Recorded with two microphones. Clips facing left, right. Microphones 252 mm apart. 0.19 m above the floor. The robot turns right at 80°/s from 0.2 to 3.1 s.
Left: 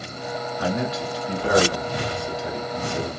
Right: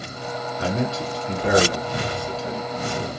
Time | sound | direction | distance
0.6 | a man speaking | 25° right (ahead or behind) | 1.1 m